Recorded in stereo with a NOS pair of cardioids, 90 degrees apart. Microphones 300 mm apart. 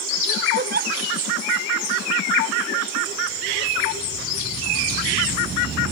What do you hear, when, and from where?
0.6 s a giggle: 35° right